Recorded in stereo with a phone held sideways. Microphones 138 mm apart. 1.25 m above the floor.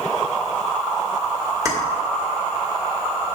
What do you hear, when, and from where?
1.6 s keys jangling: 25° right (ahead or behind), 2.0 m